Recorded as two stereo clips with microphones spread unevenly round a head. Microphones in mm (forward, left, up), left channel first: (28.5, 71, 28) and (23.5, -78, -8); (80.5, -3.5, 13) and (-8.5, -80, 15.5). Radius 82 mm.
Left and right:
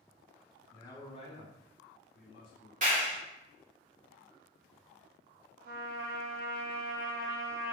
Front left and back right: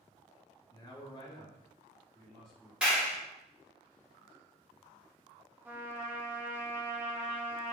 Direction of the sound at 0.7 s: 10° left.